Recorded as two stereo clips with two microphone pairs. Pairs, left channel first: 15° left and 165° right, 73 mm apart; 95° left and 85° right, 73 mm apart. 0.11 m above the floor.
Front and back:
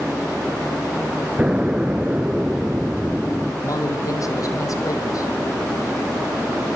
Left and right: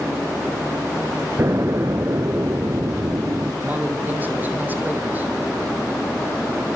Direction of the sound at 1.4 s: 105° right.